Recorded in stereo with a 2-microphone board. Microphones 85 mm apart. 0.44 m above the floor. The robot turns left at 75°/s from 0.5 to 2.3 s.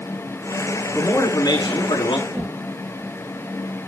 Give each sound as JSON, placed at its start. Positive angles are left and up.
{"t": 0.9, "sound": "a man speaking", "azimuth_deg": 160, "distance_m": 4.5}
{"t": 2.3, "sound": "a whoosh", "side_deg": -15, "distance_m": 5.0}